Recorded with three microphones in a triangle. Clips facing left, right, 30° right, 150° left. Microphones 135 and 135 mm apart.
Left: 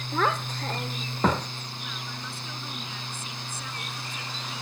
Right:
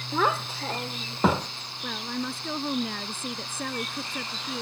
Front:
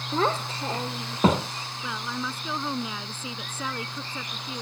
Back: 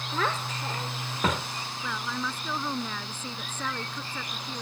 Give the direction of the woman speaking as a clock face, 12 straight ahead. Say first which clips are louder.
Right 11 dB, front 1 dB; 4 o'clock.